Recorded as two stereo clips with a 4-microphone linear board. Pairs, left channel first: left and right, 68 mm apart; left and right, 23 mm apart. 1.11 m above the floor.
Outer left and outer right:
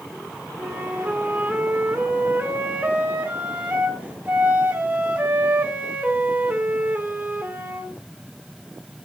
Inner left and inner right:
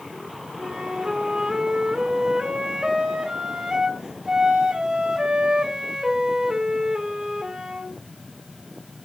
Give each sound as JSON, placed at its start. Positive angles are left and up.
{"t": 0.6, "sound": "a flute", "side_deg": -20, "distance_m": 1.5}